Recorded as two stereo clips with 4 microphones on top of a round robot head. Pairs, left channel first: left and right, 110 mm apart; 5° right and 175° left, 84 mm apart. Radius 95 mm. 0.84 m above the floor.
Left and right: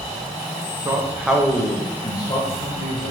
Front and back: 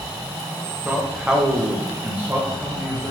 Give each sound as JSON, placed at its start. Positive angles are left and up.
{"t": 0.8, "sound": "a man speaking", "azimuth_deg": -105, "distance_m": 0.6}